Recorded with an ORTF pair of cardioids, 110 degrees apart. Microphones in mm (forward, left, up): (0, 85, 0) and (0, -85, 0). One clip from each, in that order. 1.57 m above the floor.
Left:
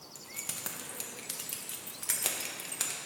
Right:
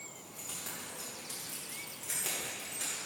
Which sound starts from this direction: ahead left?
Keys jangling, at 0.1 s.